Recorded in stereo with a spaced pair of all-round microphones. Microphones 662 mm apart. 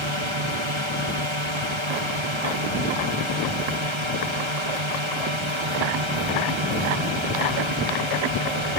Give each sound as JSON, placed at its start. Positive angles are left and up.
{"t": 0.0, "sound": "a drone", "side_deg": -45}